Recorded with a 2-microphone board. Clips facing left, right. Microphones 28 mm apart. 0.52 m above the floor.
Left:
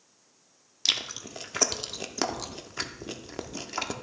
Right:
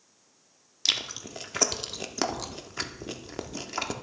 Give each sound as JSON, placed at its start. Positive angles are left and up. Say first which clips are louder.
{"t": 0.8, "sound": "chewing", "louder": "even", "side_deg": 0, "distance_m": 0.6}